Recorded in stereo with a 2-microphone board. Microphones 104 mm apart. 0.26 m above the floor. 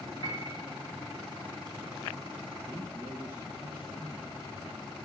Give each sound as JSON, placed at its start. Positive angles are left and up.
{"t": 0.2, "sound": "a piano", "side_deg": 35, "distance_m": 7.5}
{"t": 2.7, "sound": "a man speaking", "side_deg": -20, "distance_m": 2.5}